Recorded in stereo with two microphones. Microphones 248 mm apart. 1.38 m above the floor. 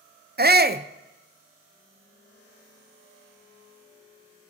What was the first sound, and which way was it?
A shout, 40° right (ahead or behind).